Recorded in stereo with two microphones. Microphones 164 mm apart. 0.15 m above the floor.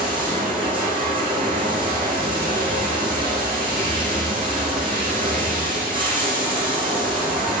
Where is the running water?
30° right (ahead or behind), 5.5 m.